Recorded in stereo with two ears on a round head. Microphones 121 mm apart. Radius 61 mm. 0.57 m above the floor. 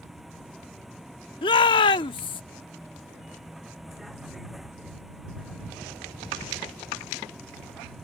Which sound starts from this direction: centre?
A vehicle, at 0.0 s.